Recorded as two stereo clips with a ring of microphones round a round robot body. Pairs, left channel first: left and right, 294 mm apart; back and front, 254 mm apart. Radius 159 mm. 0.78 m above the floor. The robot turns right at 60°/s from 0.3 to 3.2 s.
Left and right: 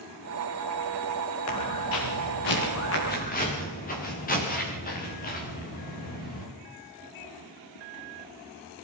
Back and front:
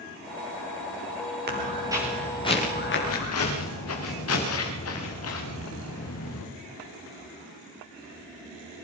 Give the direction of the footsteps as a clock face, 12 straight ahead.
10 o'clock.